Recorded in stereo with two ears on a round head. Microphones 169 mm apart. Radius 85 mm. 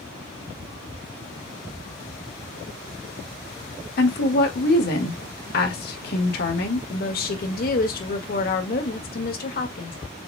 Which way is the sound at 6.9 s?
50° left (ahead or behind).